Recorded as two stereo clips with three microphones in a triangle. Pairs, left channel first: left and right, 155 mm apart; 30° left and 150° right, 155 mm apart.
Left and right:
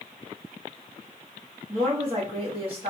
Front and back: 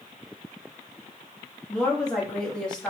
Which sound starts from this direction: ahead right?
A woman speaking, at 1.7 s.